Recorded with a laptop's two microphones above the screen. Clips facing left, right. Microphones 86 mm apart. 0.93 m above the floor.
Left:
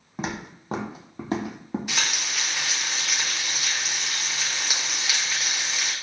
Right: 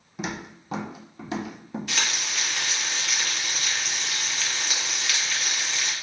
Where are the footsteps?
40° left (ahead or behind), 1.5 m; by 1.8 s 30° left (ahead or behind), 1.0 m.